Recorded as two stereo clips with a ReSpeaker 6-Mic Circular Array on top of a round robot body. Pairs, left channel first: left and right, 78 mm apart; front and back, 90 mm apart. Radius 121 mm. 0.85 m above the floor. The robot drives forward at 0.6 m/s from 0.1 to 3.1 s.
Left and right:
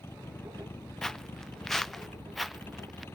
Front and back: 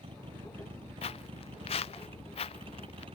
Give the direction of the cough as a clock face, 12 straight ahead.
No cough in this recording.